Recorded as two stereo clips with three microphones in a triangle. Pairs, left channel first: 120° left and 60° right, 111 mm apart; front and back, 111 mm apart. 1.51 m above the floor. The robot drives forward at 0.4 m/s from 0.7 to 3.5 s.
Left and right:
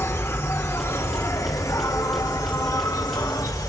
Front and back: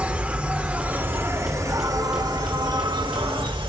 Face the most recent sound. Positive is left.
turn(degrees=165)